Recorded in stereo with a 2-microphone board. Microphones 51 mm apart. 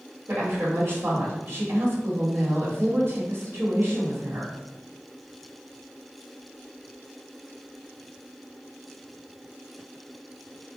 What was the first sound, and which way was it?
A woman speaking, 50° right (ahead or behind).